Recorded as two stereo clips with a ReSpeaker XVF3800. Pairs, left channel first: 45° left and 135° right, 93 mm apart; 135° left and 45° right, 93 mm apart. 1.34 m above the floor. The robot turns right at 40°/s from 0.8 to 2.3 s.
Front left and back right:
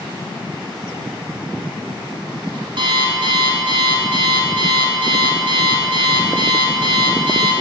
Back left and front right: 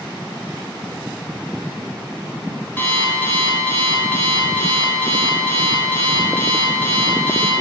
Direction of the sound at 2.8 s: 155° right.